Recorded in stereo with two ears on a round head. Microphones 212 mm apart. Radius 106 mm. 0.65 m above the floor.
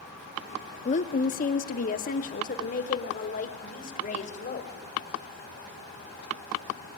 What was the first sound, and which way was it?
A woman speaking, 30° left (ahead or behind).